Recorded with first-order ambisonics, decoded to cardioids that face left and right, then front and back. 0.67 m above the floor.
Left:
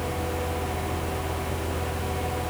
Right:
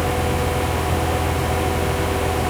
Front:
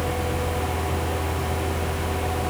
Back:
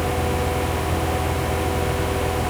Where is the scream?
I don't hear a scream.